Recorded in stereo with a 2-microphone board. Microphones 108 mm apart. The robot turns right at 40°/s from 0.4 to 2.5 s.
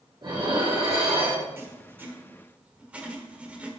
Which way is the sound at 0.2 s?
135° right.